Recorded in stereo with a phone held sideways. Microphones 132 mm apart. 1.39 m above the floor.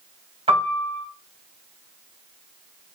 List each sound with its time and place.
0.5 s a piano: 50° right (ahead or behind), 1.8 m